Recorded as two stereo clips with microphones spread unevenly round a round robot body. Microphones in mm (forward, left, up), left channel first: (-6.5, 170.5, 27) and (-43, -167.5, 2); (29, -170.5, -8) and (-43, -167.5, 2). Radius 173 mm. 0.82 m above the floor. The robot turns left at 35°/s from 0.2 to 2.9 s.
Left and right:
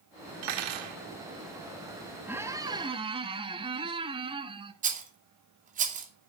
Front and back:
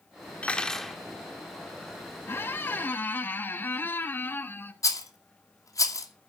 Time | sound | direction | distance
0.4 | cutlery clinking | 75° right | 1.5 m
2.3 | a squeak | 10° right | 0.7 m
4.8 | a rattle | 30° right | 2.5 m